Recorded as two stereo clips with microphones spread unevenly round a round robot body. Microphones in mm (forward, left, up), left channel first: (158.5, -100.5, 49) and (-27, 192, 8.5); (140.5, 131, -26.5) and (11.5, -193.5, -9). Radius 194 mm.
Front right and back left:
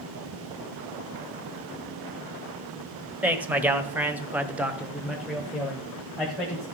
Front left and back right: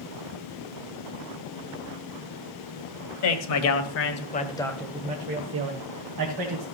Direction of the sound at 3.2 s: 40° left.